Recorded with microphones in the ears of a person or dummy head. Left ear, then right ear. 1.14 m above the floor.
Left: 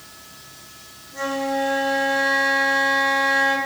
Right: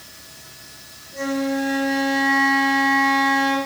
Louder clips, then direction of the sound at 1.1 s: Left 1 dB; 30° left (ahead or behind).